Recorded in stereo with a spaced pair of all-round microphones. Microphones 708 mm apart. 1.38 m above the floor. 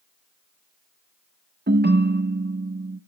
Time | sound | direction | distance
1.7 | a ringtone | 15° right (ahead or behind) | 0.6 m